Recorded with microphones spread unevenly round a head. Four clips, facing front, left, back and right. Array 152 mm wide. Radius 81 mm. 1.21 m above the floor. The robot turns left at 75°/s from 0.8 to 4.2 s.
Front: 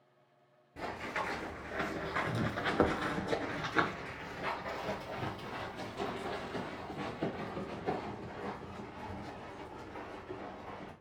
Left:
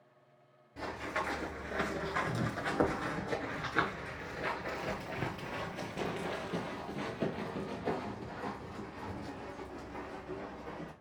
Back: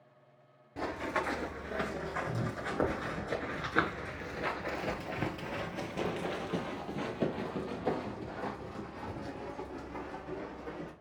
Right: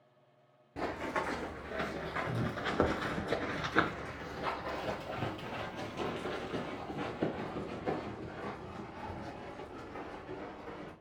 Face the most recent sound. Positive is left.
turn(degrees=160)